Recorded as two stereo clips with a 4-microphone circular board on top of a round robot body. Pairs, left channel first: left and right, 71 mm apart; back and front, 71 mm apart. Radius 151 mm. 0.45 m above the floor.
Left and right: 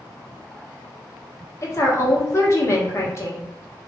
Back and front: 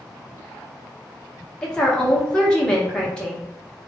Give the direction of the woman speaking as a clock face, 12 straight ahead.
9 o'clock.